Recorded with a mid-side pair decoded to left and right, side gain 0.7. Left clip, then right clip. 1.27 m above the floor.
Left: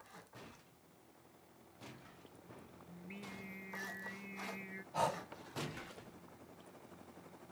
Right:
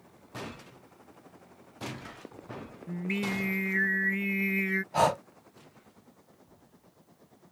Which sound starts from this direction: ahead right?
Breathing, at 4.9 s.